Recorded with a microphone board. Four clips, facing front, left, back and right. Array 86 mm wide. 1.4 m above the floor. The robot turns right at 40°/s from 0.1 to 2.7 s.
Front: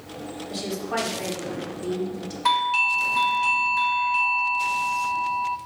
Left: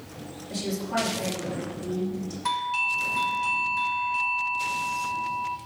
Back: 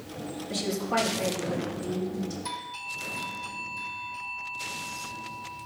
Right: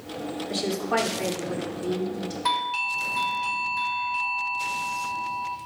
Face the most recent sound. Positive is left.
turn(degrees=-5)